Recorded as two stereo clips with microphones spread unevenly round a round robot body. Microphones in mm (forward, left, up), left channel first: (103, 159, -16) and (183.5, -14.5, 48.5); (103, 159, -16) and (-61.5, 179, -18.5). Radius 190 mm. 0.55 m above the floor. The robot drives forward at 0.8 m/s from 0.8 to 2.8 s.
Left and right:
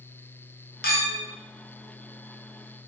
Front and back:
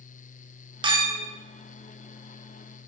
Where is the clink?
110° left, 0.9 m; by 1.2 s 130° left, 1.0 m.